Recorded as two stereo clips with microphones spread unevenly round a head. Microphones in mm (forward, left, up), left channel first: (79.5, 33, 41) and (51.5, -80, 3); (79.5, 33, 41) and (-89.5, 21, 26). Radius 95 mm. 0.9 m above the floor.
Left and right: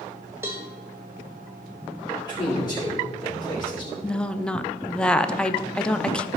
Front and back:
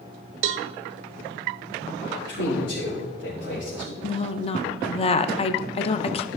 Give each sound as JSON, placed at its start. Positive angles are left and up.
{"t": 0.4, "sound": "a cowbell", "azimuth_deg": 170, "distance_m": 0.5}
{"t": 2.3, "sound": "a man speaking", "azimuth_deg": 20, "distance_m": 3.0}
{"t": 4.0, "sound": "a woman speaking", "azimuth_deg": -30, "distance_m": 0.7}